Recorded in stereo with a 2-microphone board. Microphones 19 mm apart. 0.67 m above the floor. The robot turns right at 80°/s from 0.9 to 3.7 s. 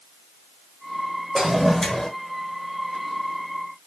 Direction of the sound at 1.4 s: 20° right.